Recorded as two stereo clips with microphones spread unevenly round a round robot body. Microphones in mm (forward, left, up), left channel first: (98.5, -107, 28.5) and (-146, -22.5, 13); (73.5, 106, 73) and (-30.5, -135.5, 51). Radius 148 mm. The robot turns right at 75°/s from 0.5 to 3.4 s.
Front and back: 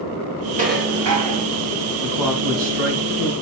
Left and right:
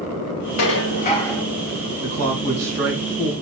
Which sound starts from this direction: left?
Dishes clattering, at 0.6 s.